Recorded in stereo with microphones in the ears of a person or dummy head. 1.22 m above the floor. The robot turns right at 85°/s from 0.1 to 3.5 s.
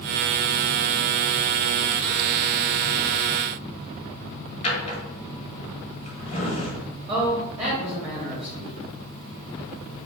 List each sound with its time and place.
4.6 s a drawer: 30° left (ahead or behind), 1.1 m
7.1 s a man speaking: 5° right (ahead or behind), 0.7 m